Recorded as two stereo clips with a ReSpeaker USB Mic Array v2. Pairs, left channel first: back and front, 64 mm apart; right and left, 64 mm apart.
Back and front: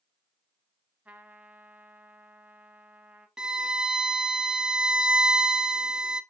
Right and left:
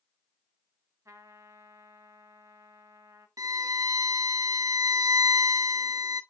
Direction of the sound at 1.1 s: 65° left.